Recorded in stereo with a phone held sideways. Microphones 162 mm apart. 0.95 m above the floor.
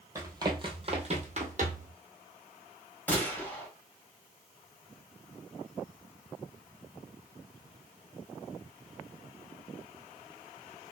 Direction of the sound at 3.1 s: 10° left (ahead or behind).